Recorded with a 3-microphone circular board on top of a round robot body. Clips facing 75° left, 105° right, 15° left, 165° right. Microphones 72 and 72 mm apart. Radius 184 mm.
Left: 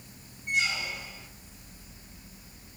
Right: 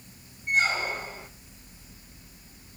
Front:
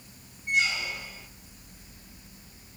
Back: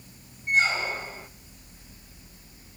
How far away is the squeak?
About 1.1 m.